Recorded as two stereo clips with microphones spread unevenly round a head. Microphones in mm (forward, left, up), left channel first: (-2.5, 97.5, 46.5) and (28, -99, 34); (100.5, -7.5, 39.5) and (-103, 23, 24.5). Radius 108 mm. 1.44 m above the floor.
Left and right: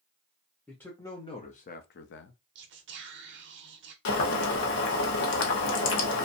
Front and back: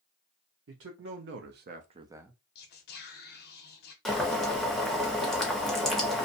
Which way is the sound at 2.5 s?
50° right.